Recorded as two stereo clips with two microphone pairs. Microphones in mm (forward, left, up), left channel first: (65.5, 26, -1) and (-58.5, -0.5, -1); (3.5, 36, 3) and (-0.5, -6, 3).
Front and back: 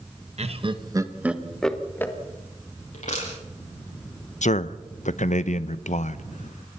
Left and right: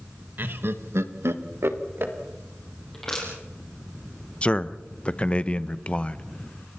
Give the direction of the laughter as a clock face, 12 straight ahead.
5 o'clock.